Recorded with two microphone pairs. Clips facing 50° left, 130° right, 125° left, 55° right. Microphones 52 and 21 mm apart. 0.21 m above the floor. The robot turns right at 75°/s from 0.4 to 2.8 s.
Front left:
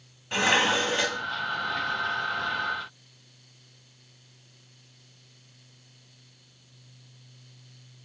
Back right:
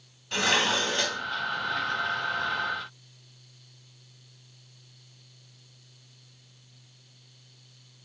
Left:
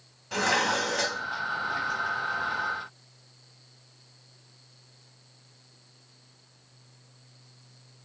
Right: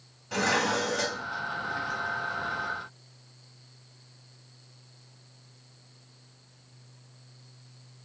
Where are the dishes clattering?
55° left, 0.7 m; by 1.2 s 120° left, 0.7 m.